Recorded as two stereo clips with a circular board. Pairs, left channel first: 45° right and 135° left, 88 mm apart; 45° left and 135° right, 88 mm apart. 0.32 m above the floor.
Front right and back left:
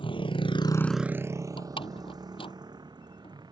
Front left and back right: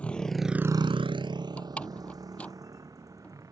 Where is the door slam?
30° right.